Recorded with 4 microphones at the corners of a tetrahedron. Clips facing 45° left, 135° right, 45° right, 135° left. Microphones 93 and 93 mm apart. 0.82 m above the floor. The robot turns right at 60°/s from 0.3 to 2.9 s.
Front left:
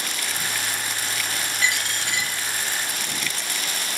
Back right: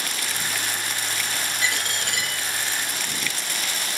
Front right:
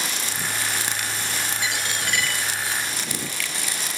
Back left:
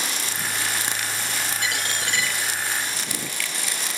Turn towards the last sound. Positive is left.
turn(degrees=-120)